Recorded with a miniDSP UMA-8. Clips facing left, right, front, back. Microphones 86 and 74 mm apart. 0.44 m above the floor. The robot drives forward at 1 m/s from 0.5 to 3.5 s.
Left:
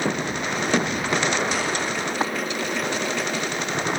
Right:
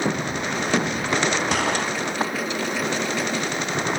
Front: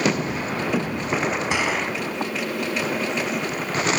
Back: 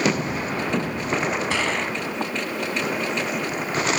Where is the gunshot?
75° right, 1.8 m; by 1.9 s 90° right, 1.7 m.